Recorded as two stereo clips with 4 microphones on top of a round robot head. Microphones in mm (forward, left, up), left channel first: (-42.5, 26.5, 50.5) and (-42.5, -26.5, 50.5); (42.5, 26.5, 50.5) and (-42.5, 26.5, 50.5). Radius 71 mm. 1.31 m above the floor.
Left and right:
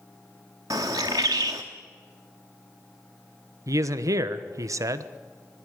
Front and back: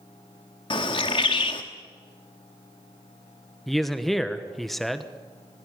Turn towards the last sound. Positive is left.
turn(degrees=-90)